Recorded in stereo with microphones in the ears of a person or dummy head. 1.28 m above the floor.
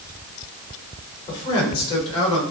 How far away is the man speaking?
About 4 m.